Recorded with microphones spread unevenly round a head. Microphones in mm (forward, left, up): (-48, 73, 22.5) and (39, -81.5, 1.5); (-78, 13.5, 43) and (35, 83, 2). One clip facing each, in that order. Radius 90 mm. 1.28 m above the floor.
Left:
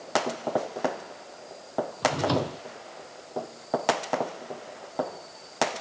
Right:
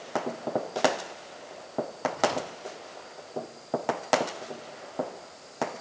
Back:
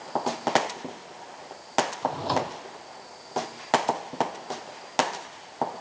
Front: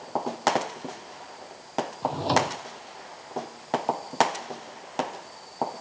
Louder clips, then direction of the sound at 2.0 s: Left 3 dB, front 2 dB; 100° left.